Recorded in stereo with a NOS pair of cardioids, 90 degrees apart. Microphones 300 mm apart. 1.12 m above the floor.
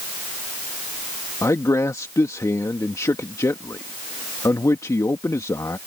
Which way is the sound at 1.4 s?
10° left.